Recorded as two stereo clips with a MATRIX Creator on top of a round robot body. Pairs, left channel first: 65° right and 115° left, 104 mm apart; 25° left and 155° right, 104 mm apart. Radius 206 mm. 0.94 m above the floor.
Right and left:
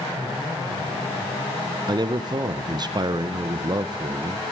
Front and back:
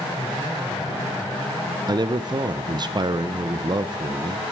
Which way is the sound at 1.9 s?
160° left.